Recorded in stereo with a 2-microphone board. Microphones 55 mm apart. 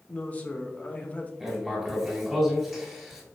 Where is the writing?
5° right (ahead or behind), 1.7 m.